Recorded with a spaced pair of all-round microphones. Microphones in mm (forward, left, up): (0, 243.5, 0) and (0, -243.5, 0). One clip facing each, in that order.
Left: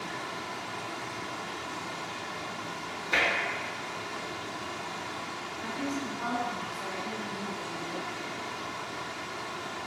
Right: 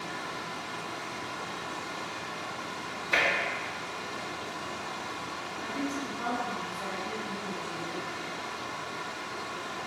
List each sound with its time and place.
0.0 s running water: 45° left (ahead or behind), 1.0 m
3.1 s tapping: 5° left (ahead or behind), 0.8 m
5.6 s a woman speaking: 70° right (ahead or behind), 1.8 m